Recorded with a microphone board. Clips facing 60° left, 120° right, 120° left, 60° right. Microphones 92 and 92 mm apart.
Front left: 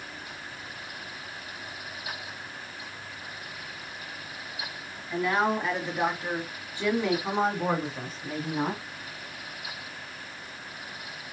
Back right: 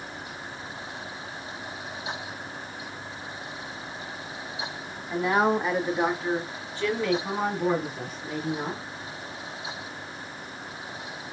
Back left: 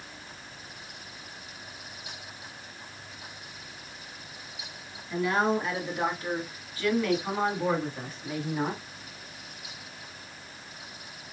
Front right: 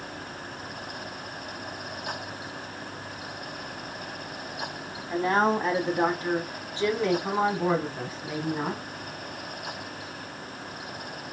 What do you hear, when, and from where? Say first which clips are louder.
5.1 s a man speaking: back right 3 dB, front right 2 dB; 65° right, 1.6 m; by 8.8 s 25° left, 2 m